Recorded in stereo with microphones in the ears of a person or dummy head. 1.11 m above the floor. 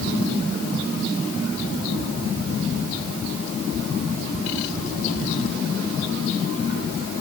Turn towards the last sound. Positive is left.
No sound to turn to.